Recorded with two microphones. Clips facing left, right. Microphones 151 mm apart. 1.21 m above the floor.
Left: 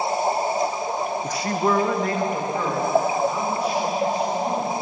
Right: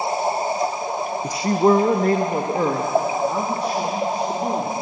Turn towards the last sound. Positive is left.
turn(degrees=-55)  # may be behind; listen again after turning